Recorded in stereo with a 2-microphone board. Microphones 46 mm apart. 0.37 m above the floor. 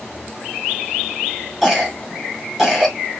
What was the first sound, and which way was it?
A cough, 5° right (ahead or behind).